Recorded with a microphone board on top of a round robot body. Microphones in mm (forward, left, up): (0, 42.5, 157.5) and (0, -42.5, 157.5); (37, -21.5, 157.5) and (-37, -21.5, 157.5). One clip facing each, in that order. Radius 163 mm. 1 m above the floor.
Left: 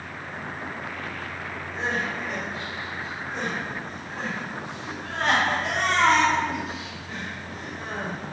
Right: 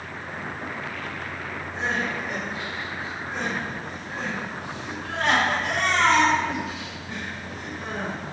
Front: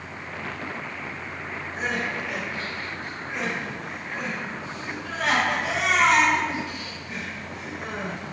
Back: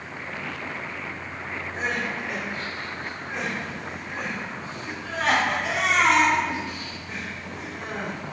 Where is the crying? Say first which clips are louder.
Right 1 dB, even; 140° left, 3 m.